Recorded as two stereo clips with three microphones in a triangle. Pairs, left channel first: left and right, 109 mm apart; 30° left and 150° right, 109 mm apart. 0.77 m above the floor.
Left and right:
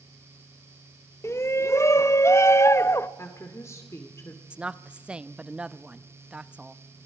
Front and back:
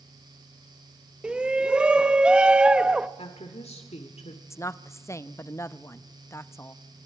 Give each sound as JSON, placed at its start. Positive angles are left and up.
{"t": 1.2, "sound": "a shout", "azimuth_deg": 135, "distance_m": 0.6}
{"t": 3.2, "sound": "a woman speaking", "azimuth_deg": 25, "distance_m": 2.0}
{"t": 4.5, "sound": "a woman speaking", "azimuth_deg": -15, "distance_m": 0.6}